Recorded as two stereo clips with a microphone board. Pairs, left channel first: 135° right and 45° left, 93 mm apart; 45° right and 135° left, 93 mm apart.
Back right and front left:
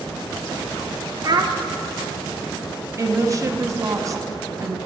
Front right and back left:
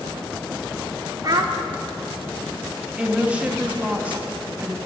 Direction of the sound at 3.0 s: 65° left.